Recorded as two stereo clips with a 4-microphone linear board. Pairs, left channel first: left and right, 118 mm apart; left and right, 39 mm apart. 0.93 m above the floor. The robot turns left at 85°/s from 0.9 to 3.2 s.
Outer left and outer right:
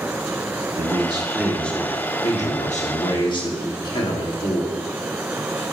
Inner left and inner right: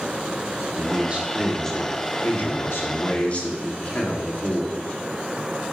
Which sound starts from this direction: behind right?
A man speaking, at 0.8 s.